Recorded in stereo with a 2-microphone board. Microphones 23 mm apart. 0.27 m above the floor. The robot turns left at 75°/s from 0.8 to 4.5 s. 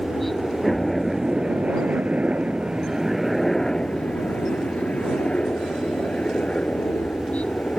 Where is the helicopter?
10° left; by 7.8 s 95° left.